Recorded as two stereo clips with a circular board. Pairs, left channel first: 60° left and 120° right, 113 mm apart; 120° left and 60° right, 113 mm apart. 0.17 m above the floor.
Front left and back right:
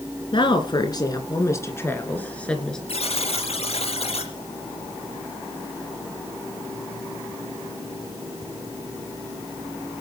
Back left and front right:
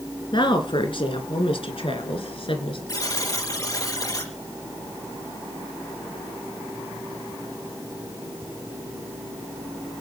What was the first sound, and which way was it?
A woman speaking, 90° left.